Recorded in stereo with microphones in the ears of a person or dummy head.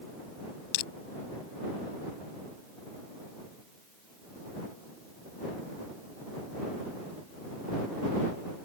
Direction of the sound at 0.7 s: 60° left (ahead or behind).